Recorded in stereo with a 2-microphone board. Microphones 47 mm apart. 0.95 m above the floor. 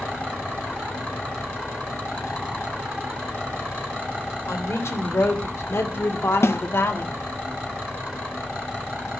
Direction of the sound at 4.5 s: 85° left.